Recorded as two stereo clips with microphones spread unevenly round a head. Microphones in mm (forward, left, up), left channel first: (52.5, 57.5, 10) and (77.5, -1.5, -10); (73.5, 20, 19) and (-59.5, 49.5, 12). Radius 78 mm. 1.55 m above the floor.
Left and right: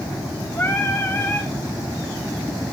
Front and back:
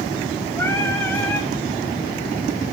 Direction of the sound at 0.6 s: 60° left.